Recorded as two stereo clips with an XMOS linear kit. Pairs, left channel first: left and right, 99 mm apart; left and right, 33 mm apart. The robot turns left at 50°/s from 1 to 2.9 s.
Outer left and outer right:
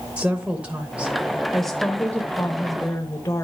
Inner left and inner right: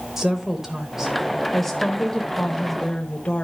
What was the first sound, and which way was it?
A woman speaking, 10° right (ahead or behind).